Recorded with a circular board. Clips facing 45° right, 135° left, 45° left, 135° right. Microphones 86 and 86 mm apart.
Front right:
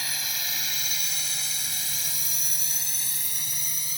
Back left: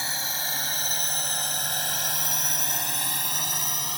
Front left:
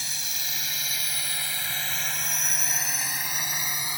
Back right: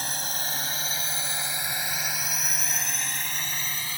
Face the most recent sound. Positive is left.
turn(degrees=115)